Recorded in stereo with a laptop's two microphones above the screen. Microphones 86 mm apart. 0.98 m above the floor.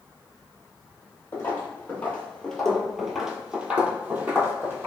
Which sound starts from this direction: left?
Footsteps, at 1.3 s.